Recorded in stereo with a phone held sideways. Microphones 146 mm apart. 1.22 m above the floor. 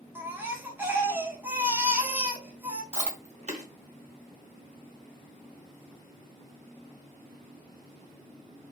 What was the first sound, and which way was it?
A baby crying, 15° right (ahead or behind).